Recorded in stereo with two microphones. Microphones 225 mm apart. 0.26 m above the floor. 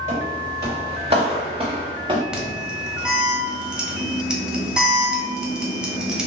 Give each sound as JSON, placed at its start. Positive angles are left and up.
{"t": 0.1, "sound": "footsteps", "side_deg": -30, "distance_m": 2.0}
{"t": 2.3, "sound": "an alarm", "side_deg": -5, "distance_m": 0.8}